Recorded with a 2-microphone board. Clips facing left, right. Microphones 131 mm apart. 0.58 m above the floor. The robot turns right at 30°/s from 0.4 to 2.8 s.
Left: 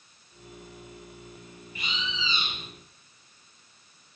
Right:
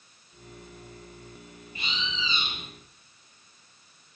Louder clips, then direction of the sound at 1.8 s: Even; 30° right (ahead or behind).